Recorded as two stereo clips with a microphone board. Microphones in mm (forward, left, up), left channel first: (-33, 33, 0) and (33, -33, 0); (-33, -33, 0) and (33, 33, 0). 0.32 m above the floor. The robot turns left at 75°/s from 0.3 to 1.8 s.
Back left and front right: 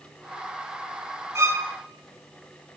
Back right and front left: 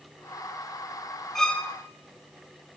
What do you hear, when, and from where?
1.4 s a violin: 55° right, 1.6 m; by 1.7 s 80° right, 1.6 m